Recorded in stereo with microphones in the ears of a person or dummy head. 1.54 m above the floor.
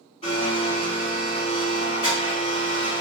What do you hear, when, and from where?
0.2 s a blender: 30° left (ahead or behind), 1.7 m